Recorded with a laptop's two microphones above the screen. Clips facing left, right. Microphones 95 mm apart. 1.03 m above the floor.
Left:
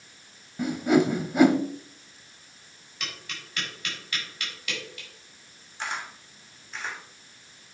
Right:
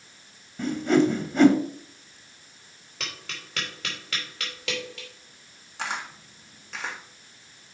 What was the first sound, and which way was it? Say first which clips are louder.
A whoosh: right 1 dB; 10° left (ahead or behind).